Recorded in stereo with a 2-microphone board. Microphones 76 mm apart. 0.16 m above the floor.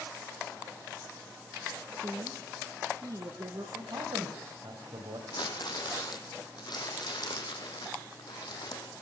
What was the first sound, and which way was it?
A woman speaking, 50° right (ahead or behind).